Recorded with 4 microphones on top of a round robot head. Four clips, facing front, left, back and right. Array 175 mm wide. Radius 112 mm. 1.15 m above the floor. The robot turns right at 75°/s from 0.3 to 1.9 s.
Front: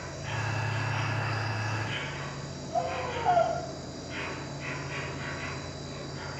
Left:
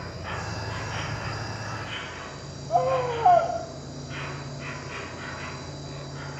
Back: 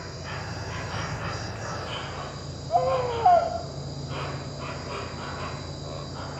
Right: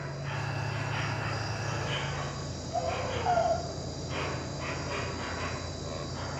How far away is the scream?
About 2.5 m.